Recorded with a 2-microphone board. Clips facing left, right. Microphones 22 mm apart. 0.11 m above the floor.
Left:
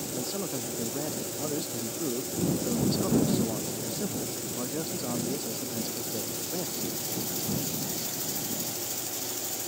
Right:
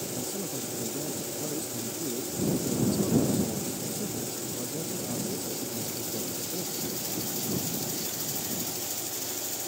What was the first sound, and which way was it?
A man speaking, 40° left (ahead or behind).